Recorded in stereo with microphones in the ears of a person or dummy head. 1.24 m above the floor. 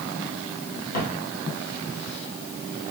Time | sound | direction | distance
0.9 | footsteps | 50° left (ahead or behind) | 2 m